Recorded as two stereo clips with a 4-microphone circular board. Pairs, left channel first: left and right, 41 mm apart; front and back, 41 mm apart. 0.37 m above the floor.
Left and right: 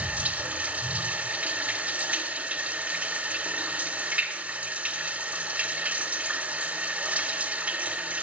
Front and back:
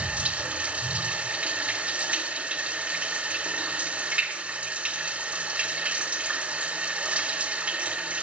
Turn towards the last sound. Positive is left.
turn(degrees=-135)